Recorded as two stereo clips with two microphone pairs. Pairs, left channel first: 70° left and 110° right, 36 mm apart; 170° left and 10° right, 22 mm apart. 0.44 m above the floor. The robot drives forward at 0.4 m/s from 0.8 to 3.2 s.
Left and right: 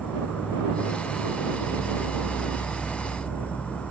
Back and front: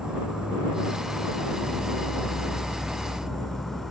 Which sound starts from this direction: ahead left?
An insect, at 0.0 s.